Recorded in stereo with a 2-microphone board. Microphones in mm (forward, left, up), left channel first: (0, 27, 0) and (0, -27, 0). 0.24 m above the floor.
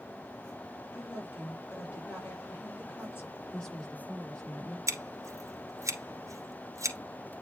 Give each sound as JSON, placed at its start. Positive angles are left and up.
{"t": 0.9, "sound": "a woman speaking", "side_deg": 40, "distance_m": 6.0}
{"t": 3.5, "sound": "a woman speaking", "side_deg": 15, "distance_m": 5.0}
{"t": 4.9, "sound": "scissors", "side_deg": -75, "distance_m": 1.7}